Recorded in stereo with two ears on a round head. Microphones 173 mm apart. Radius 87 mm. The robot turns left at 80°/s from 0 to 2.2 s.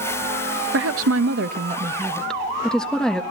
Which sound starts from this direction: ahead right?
A woman speaking, at 0.7 s.